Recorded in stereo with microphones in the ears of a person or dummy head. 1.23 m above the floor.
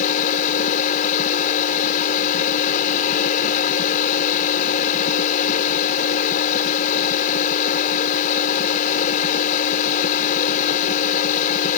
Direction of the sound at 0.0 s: 45° left (ahead or behind).